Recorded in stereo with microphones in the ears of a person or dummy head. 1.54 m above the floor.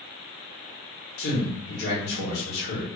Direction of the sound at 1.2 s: 55° left (ahead or behind).